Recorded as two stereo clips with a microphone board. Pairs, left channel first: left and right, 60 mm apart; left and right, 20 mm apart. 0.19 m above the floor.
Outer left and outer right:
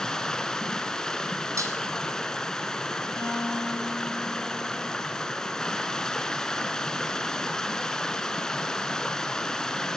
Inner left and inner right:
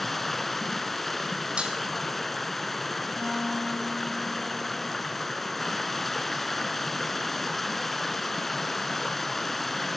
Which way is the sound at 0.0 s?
10° left (ahead or behind).